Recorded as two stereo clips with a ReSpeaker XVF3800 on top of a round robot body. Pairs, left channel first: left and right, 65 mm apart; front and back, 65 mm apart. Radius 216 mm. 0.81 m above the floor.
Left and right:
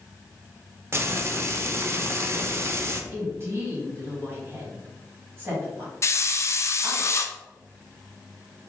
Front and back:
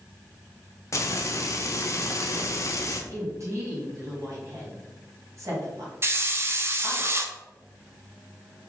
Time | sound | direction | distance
0.9 | frying | 40° right | 0.8 m
3.1 | a woman speaking | 140° right | 2.0 m
6.0 | a hiss | 130° left | 0.6 m